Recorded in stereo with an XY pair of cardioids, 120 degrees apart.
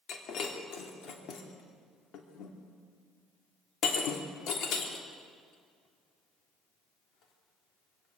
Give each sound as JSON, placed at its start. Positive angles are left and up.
{"t": 0.1, "sound": "breaking glass", "azimuth_deg": 65, "distance_m": 3.0}